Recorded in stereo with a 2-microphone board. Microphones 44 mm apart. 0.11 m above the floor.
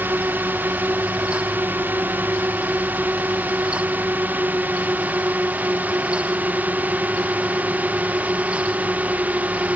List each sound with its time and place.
0.0 s a drone: 50° right (ahead or behind); by 9.8 s 40° right (ahead or behind)